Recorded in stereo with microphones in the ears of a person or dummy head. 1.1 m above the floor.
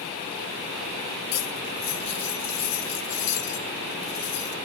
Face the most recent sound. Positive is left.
turn(degrees=75)  # may be behind; listen again after turning